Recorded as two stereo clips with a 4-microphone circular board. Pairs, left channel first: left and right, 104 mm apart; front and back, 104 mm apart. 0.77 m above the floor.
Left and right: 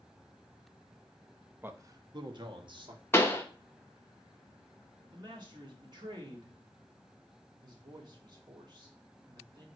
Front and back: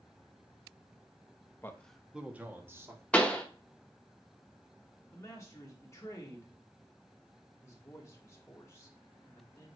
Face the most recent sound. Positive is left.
turn(degrees=-60)